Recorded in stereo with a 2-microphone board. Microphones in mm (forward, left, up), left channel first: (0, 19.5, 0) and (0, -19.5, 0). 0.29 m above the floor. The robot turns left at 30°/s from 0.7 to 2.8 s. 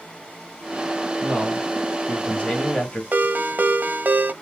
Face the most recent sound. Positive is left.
turn(degrees=-50)  # may be behind; listen again after turning